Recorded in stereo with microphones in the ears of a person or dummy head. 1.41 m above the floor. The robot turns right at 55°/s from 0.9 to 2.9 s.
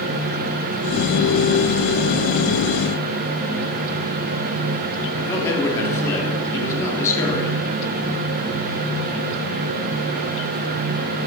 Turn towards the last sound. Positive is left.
turn(degrees=15)  # may be behind; listen again after turning